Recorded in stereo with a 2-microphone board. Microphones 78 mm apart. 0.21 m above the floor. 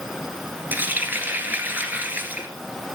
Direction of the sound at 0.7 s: 25° right (ahead or behind).